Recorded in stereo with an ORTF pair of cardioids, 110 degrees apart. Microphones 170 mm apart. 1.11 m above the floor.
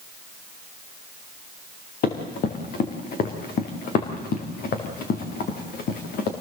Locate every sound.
2.0 s running footsteps: 60° left, 4.5 m